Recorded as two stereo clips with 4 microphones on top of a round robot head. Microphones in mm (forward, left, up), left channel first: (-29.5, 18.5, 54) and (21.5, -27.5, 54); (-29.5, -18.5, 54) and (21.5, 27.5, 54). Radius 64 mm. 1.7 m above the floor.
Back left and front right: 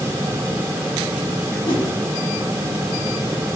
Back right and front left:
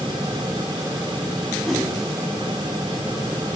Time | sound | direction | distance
1.6 | a whoosh | 130° left | 4.5 m